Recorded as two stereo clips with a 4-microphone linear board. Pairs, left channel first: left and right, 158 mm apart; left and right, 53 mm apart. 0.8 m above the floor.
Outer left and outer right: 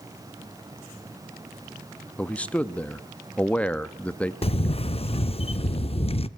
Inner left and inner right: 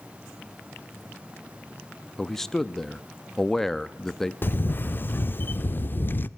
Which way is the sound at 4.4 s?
40° left (ahead or behind).